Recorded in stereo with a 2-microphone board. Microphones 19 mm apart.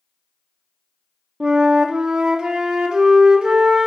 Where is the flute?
50° right (ahead or behind), 0.6 m.